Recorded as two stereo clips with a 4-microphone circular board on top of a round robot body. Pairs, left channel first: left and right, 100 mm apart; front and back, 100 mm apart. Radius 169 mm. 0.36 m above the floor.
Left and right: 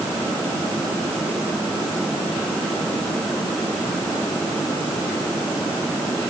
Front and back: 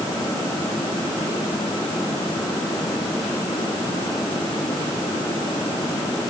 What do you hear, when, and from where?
Only background noise.